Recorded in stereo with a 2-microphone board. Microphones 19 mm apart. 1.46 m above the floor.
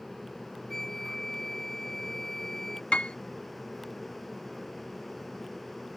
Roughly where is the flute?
Left.